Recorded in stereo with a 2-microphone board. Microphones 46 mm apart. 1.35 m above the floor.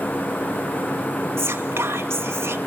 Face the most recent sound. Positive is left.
turn(degrees=-65)  # may be behind; listen again after turning